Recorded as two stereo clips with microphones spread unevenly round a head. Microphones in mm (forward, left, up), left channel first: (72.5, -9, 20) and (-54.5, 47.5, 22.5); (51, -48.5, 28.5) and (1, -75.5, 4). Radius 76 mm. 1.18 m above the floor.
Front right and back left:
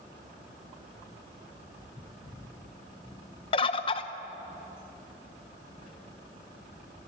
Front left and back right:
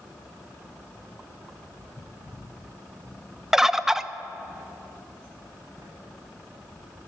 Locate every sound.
3.5 s a bird: 75° right, 0.8 m
5.8 s writing: 125° left, 7.5 m